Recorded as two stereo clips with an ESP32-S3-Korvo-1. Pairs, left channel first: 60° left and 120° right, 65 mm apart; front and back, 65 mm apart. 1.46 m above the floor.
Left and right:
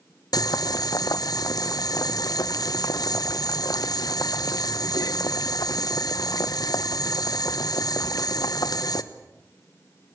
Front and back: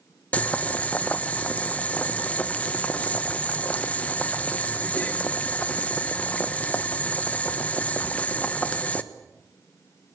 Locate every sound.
0.3 s boiling: 70° left, 1.2 m